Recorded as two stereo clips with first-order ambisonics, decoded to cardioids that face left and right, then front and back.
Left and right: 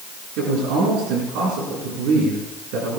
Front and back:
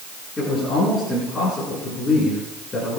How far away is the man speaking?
About 6.5 m.